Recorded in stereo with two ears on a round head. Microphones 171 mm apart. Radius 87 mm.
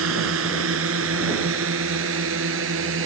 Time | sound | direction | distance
0.0 | a drone | 80° right | ?